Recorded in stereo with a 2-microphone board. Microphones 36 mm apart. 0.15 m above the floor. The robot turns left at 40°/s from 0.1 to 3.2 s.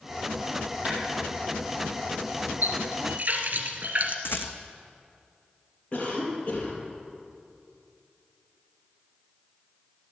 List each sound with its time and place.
0.8 s a clap: 35° right (ahead or behind), 4.5 m; by 1.0 s 30° right (ahead or behind), 4.5 m
2.6 s a running tap: 60° right (ahead or behind), 1.9 m; by 4.2 s 45° right (ahead or behind), 1.9 m
4.2 s a rattle: 75° left (ahead or behind), 1.4 m
5.9 s a cough: 35° left (ahead or behind), 4.5 m